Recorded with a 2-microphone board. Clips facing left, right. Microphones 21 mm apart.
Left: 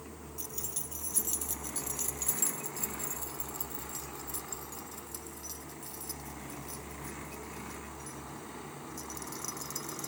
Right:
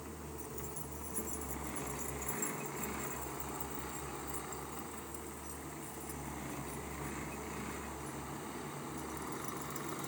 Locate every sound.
0.4 s keys jangling: 65° left (ahead or behind); by 10.1 s 55° left (ahead or behind)